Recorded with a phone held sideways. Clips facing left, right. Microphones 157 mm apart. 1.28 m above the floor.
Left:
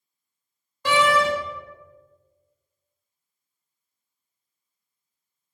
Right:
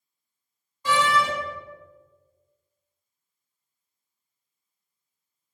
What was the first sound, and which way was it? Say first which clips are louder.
A door slam: left 3 dB; 75° left (ahead or behind).